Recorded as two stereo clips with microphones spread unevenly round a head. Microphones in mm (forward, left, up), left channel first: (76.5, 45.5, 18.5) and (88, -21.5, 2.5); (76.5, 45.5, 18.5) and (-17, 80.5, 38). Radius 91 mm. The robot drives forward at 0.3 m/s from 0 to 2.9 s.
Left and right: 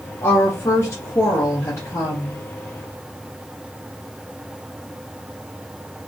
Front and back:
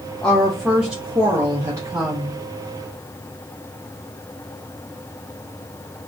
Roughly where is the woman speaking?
Left.